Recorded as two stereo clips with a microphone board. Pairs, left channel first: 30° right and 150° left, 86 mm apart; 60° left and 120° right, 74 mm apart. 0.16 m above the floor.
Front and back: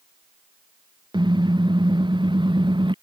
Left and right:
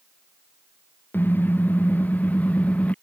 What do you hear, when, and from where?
1.1 s a car horn: 125° left; by 3.0 s 130° left